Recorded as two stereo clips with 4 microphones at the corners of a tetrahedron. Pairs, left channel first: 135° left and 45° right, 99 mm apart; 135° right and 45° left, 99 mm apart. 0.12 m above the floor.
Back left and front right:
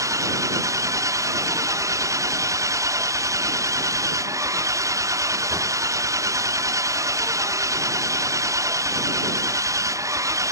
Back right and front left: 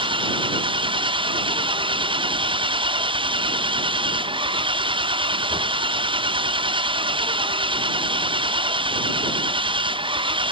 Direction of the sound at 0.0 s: 15° left.